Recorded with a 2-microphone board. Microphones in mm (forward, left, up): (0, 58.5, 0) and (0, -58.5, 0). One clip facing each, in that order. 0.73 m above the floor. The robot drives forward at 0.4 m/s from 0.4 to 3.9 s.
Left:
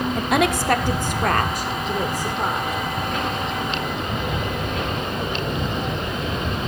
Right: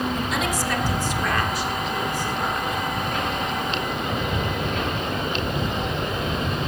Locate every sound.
0.1 s a woman speaking: 60° left (ahead or behind), 1.3 m; by 2.8 s 40° left (ahead or behind), 1.9 m